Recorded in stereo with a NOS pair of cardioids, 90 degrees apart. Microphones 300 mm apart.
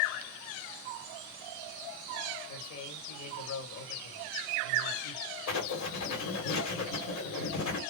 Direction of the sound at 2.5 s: 60° left.